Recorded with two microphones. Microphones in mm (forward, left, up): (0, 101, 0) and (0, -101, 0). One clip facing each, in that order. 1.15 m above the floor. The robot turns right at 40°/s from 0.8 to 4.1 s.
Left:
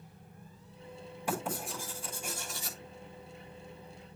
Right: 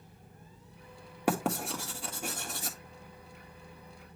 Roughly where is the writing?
Right.